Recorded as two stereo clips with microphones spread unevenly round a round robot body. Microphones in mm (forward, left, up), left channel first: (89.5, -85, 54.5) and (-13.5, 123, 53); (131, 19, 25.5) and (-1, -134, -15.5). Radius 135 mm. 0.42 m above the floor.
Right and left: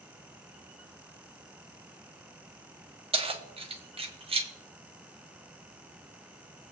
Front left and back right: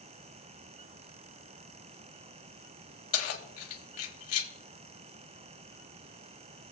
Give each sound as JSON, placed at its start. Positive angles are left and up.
{"t": 3.1, "sound": "keys jangling", "azimuth_deg": 50, "distance_m": 1.5}